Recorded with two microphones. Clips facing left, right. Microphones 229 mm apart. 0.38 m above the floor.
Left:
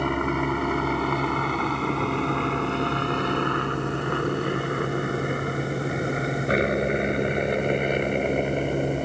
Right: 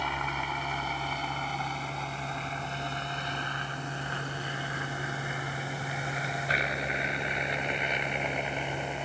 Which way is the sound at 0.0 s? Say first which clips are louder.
Left 13 dB; 55° left (ahead or behind).